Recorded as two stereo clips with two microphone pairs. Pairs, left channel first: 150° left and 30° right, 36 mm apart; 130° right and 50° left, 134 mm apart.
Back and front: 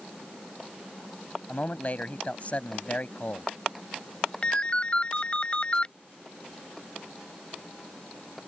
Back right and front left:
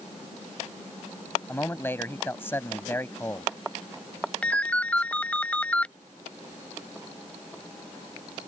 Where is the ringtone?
160° left.